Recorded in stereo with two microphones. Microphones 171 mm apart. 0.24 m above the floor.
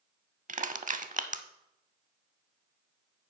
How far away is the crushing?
About 0.5 m.